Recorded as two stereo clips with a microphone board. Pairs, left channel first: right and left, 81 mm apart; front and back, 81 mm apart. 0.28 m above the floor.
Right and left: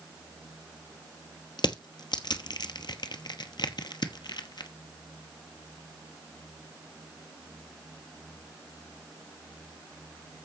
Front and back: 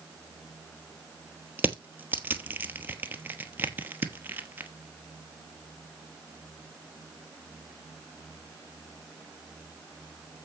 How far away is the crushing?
About 1.0 m.